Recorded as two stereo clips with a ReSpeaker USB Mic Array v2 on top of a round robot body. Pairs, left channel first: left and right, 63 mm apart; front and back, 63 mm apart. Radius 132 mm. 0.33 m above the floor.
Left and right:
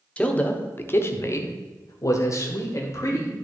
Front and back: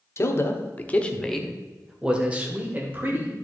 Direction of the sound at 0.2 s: 25° left.